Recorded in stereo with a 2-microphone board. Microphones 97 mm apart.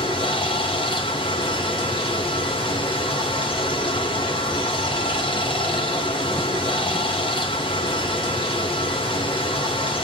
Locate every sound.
0.0 s running water: 60° left (ahead or behind), 1.2 m